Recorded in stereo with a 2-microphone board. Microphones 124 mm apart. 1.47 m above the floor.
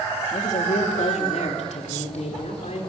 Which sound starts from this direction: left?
A woman speaking, at 0.3 s.